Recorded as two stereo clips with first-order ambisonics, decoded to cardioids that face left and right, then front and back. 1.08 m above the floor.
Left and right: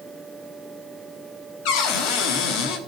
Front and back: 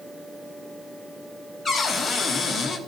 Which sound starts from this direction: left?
A cupboard door, at 1.6 s.